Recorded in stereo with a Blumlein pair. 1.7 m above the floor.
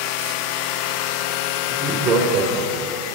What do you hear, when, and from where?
1.7 s laughter: 20° right, 1.2 m; by 3.0 s 35° right, 2.5 m